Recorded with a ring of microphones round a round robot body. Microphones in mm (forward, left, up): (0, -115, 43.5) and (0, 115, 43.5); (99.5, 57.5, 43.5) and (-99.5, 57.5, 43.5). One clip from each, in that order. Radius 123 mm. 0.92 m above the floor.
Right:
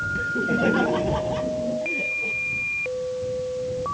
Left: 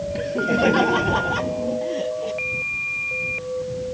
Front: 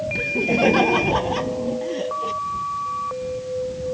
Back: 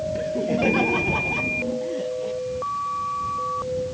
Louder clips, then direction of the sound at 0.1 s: Left 5 dB, front 5 dB; 35° left.